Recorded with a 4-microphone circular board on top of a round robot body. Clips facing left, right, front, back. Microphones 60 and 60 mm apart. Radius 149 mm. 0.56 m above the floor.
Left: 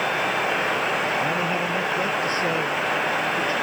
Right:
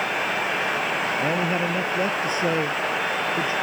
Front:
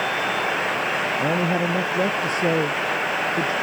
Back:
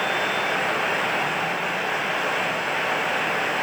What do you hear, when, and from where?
1.2 s a man speaking: 25° right; by 3.5 s 20° right